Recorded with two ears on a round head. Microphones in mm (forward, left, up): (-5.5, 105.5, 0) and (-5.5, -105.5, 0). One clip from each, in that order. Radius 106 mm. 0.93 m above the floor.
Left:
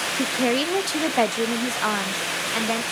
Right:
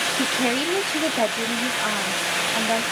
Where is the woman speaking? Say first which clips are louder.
Even; 10° right (ahead or behind), 0.5 m; by 2.8 s 70° left (ahead or behind), 1.7 m.